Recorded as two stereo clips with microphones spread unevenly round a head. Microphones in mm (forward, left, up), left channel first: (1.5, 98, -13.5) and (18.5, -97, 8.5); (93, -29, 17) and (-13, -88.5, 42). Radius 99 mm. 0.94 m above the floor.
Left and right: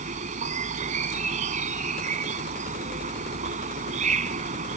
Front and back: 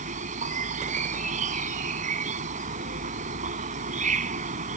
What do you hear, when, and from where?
0.0 s an insect: 140° right